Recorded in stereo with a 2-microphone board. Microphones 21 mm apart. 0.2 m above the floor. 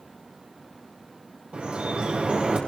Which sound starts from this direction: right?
Dripping, at 1.5 s.